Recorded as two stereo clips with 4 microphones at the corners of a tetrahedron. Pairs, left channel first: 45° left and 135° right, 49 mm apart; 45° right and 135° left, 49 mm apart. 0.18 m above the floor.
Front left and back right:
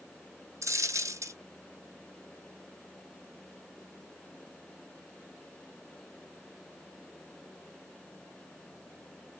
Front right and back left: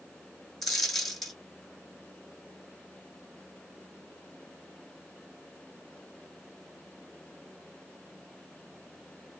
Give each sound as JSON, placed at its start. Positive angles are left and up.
{"t": 0.6, "sound": "a dropped coin", "azimuth_deg": -135, "distance_m": 1.3}